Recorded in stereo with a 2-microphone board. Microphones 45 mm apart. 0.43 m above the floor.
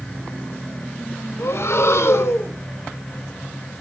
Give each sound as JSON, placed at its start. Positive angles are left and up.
{"t": 1.4, "sound": "breathing", "side_deg": 70, "distance_m": 0.6}